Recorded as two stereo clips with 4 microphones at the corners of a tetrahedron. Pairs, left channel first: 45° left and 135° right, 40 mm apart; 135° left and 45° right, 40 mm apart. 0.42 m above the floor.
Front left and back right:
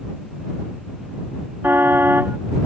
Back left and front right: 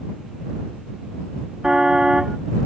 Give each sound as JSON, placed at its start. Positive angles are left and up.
{"t": 1.6, "sound": "a car horn", "azimuth_deg": -115}